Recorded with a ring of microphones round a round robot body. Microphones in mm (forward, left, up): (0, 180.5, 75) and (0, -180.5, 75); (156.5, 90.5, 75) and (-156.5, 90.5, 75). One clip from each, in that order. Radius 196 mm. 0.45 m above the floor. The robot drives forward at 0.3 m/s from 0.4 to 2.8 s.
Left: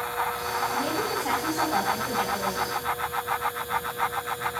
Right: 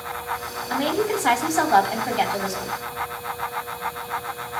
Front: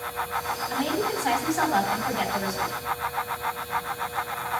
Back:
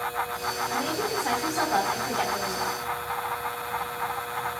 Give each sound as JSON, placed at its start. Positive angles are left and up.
{"t": 0.7, "sound": "a woman speaking", "azimuth_deg": -90, "distance_m": 3.5}